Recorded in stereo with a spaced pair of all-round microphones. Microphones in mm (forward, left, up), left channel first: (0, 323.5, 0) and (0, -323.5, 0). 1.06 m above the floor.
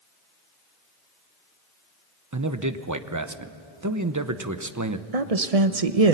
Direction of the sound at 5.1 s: 65° right (ahead or behind).